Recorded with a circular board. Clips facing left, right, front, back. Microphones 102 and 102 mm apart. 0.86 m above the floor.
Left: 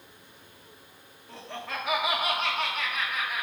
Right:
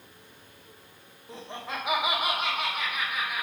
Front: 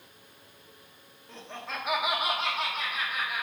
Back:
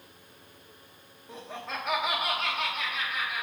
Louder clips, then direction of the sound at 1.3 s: Even, back 1 dB; 125° right.